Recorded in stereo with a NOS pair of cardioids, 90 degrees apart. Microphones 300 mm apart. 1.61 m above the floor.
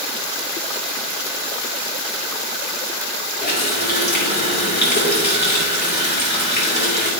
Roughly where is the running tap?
Ahead left.